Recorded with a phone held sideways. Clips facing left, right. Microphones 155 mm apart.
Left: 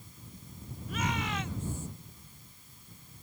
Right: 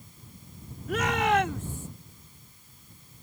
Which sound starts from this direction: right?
A shout, at 0.9 s.